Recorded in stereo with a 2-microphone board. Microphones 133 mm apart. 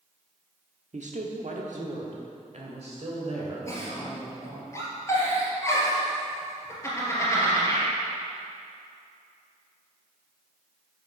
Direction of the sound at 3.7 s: 20° left (ahead or behind).